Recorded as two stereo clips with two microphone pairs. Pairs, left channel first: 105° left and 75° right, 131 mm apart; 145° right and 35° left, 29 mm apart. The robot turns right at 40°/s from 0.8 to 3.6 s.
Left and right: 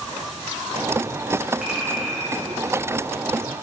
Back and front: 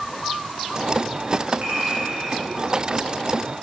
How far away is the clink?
About 1.3 m.